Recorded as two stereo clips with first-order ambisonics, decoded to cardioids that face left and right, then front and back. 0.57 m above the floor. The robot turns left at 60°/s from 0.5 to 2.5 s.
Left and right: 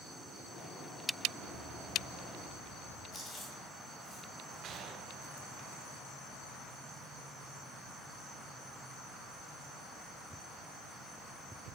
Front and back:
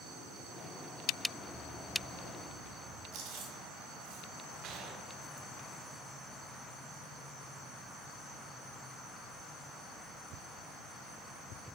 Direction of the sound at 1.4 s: 95° right.